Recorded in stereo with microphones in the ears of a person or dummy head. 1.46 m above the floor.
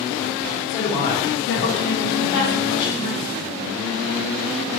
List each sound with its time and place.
0.7 s a woman speaking: 25° left (ahead or behind), 0.7 m; by 3.4 s 60° left (ahead or behind), 1.4 m